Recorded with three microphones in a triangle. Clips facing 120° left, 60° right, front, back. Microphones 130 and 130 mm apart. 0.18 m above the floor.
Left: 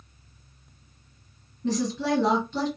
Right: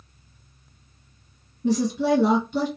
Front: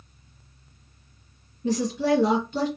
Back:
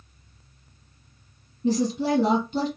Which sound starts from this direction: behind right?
A woman speaking, at 1.6 s.